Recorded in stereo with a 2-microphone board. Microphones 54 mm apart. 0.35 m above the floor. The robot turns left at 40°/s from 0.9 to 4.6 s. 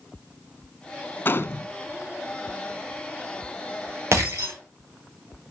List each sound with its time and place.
1.2 s a gunshot: 40° left (ahead or behind), 0.6 m; by 1.7 s 55° left (ahead or behind), 0.6 m
4.1 s breaking glass: 60° right (ahead or behind), 6.5 m; by 4.5 s 75° right (ahead or behind), 6.5 m